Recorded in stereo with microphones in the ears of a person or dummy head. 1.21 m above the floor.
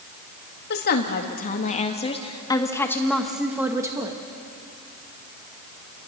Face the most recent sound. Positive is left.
turn(degrees=-25)  # may be behind; listen again after turning